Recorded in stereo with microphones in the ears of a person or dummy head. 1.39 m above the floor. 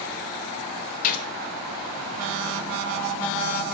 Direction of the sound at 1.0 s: 45° left (ahead or behind).